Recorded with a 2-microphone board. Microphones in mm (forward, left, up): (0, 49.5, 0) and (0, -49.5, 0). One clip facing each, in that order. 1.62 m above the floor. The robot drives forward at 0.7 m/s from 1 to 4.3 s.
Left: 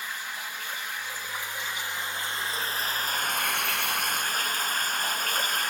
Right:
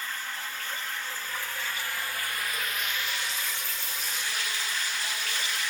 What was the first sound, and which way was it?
Running water, 15° left (ahead or behind).